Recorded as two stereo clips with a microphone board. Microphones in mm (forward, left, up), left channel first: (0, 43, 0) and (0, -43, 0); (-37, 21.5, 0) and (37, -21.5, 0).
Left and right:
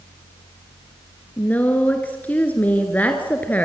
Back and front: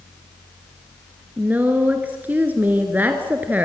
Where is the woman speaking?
30° left, 1.7 m.